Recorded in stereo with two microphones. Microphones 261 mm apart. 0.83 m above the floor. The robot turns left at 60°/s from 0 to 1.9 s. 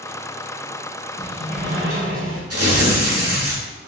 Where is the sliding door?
10° right, 1.2 m; by 2.4 s 55° right, 1.2 m.